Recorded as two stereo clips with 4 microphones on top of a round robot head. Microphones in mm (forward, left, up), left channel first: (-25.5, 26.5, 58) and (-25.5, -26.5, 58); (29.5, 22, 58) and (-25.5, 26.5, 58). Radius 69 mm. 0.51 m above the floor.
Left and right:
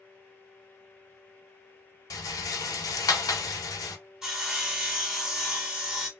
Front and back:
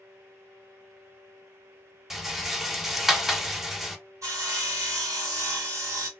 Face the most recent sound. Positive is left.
turn(degrees=-170)